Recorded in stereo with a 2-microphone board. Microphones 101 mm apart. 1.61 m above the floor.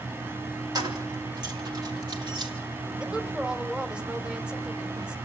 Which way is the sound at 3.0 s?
10° right (ahead or behind).